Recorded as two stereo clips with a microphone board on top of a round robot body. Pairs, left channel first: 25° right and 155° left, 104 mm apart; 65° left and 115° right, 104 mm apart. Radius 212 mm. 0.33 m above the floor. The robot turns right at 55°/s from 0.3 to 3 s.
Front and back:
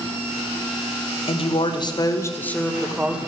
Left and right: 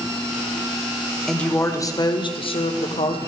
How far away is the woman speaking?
About 2 m.